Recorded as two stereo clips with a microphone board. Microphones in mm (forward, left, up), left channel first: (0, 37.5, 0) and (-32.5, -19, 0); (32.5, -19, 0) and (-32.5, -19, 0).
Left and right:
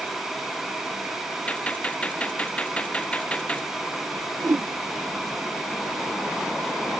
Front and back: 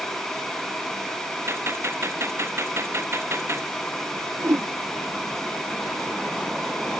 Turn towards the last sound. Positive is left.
turn(degrees=-155)